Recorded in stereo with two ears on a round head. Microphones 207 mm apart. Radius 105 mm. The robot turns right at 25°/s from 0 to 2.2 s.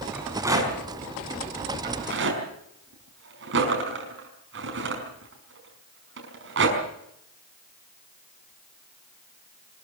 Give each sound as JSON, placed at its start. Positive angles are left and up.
{"t": 0.1, "sound": "a rattle", "side_deg": -5, "distance_m": 5.5}